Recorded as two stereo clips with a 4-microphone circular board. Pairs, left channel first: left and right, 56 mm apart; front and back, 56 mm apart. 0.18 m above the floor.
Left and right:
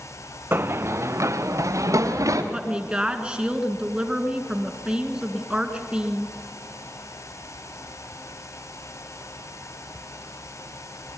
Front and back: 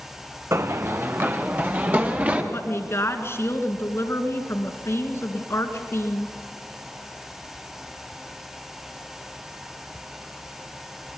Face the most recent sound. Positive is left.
turn(degrees=-20)